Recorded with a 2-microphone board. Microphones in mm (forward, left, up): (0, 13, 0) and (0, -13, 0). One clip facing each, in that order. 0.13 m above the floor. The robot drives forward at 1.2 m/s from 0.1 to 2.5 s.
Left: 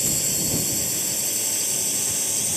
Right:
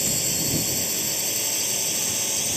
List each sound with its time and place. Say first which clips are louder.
0.0 s a drone: even; 10° right (ahead or behind); by 2.6 s 15° right (ahead or behind)